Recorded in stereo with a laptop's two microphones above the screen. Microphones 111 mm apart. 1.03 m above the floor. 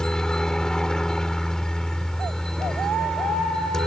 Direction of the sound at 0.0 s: 5° left (ahead or behind).